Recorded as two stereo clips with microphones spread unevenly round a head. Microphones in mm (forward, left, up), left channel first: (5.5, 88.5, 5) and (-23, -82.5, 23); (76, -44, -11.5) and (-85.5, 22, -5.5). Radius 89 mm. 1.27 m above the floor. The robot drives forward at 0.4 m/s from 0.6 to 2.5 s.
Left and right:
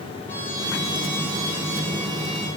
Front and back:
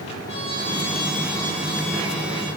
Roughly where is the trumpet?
Ahead.